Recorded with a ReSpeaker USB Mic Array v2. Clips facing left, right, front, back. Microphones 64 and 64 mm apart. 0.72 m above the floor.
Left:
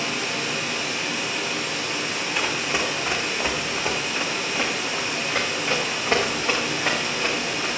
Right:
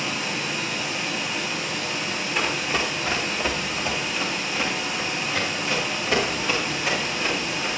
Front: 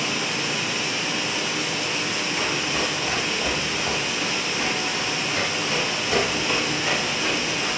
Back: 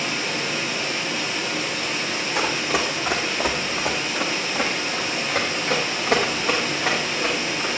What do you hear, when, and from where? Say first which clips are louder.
0.0 s running water: left 1 dB, even; 90° left, 5 m
2.4 s running footsteps: right 1 dB, back 4 dB; 175° left, 1.8 m; by 7.7 s 135° left, 4 m